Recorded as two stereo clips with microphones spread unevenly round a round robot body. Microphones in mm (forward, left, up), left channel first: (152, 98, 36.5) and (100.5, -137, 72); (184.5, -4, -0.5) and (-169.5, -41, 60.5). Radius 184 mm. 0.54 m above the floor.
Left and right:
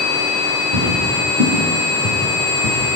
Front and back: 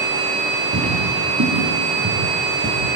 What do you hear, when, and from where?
0.7 s footsteps: 125° right, 7.5 m; by 3.0 s 110° right, 8.5 m